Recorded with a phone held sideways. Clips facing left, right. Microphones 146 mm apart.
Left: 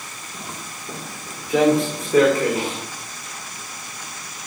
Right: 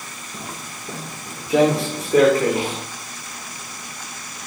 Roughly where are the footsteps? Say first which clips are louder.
Right 1 dB; right.